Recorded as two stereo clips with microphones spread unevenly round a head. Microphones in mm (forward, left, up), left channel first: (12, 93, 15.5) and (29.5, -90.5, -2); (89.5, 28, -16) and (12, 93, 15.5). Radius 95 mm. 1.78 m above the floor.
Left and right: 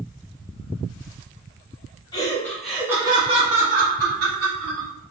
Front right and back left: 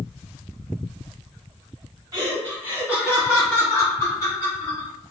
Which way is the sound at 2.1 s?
155° left.